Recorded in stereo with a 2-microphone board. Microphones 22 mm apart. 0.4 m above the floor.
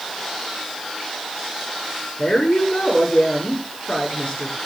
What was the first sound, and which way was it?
A woman speaking, 55° left (ahead or behind).